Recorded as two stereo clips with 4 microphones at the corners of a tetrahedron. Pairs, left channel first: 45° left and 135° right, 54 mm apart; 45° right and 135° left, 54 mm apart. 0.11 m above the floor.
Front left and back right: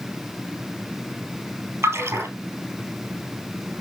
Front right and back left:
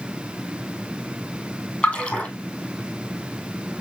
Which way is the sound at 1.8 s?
100° right.